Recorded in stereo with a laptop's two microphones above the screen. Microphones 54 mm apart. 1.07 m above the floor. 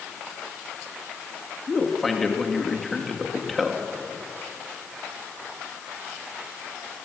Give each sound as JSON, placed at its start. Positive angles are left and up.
{"t": 1.7, "sound": "a man speaking", "side_deg": 5, "distance_m": 2.0}